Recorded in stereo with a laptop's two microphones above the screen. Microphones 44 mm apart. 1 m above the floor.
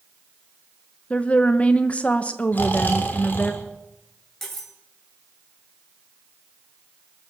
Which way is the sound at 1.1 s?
30° left (ahead or behind).